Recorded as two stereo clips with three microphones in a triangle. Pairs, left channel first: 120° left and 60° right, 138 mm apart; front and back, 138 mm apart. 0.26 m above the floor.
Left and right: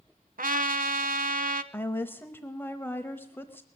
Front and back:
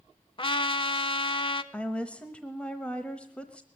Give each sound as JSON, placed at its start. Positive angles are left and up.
{"t": 0.4, "sound": "a trumpet", "azimuth_deg": -55, "distance_m": 0.6}
{"t": 1.7, "sound": "a woman speaking", "azimuth_deg": 70, "distance_m": 0.9}